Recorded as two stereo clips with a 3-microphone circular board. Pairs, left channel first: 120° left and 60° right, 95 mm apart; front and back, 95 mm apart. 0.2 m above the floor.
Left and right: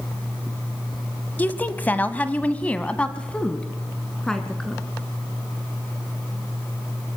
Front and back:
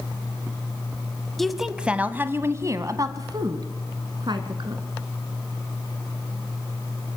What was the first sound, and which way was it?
A woman speaking, 85° left.